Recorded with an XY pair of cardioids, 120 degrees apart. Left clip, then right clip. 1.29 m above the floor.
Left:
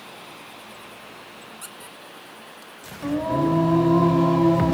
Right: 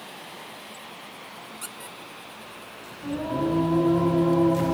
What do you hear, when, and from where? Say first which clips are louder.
1.6 s a squeak: right 1 dB; 10° right, 0.7 m
3.0 s singing: left 5 dB; 50° left, 5.5 m